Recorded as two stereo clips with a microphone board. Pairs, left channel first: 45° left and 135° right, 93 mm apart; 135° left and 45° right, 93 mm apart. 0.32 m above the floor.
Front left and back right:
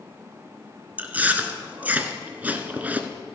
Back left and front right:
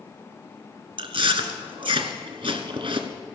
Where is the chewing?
65° right, 0.8 m.